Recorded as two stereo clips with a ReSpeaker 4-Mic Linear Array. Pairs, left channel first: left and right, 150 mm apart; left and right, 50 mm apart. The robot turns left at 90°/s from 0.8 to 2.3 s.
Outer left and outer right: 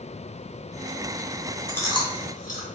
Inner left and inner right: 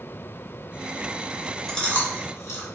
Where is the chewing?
5° left (ahead or behind), 0.7 m; by 2.7 s 60° left (ahead or behind), 0.7 m.